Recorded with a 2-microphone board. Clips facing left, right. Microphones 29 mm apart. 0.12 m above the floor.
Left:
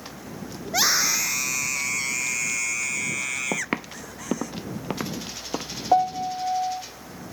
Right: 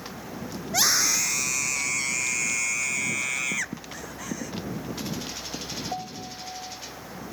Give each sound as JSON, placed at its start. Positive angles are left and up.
{"t": 0.7, "sound": "a scream", "side_deg": 15}
{"t": 3.5, "sound": "footsteps", "side_deg": 85}
{"t": 5.9, "sound": "a piano", "side_deg": 55}